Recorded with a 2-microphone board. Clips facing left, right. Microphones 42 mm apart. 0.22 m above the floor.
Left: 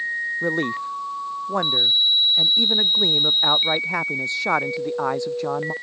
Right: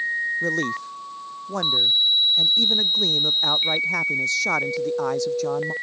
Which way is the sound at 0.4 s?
20° left (ahead or behind).